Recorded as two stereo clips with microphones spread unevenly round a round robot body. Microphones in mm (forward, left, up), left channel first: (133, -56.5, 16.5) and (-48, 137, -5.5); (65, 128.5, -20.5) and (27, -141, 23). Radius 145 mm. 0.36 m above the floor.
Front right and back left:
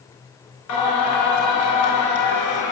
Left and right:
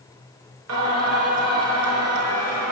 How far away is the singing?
About 6 m.